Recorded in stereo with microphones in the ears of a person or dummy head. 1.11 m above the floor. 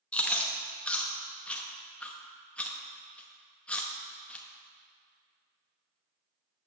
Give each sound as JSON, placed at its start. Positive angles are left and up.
{"t": 0.1, "sound": "chewing", "side_deg": 5, "distance_m": 0.7}